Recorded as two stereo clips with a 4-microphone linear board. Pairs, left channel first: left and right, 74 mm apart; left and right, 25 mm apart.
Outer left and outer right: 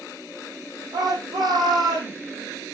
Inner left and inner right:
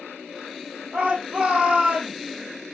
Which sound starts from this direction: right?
A shout, at 0.9 s.